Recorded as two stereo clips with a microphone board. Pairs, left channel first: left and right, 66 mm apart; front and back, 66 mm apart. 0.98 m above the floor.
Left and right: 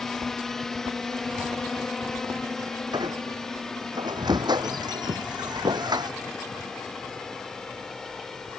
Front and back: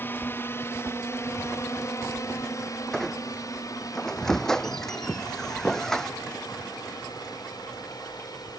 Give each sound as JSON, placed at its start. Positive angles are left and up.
{"t": 0.0, "sound": "a drone", "azimuth_deg": 10}
{"t": 2.9, "sound": "a squeak", "azimuth_deg": -80}